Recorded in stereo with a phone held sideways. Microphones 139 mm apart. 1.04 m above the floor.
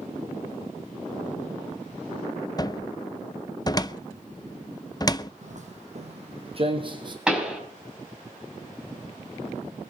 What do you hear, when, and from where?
2.6 s a cupboard door: 25° left (ahead or behind), 0.6 m
5.4 s footsteps: 60° right (ahead or behind), 2.5 m; by 7.2 s 35° right (ahead or behind), 2.5 m
7.3 s a pop: 5° right (ahead or behind), 4 m